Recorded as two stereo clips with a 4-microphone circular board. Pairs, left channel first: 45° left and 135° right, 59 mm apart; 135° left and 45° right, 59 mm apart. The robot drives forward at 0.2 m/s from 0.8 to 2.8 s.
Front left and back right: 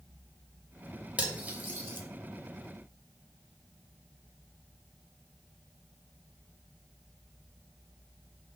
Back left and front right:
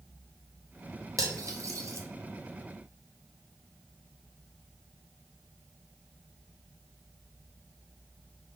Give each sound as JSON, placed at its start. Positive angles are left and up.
{"t": 1.2, "sound": "cutlery clinking", "azimuth_deg": -70, "distance_m": 0.7}